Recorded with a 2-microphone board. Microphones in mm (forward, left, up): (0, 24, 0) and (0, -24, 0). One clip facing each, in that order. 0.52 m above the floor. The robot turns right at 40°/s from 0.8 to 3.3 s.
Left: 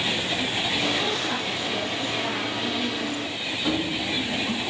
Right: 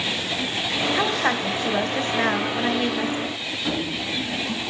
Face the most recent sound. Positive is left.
turn(degrees=10)  # may be behind; listen again after turning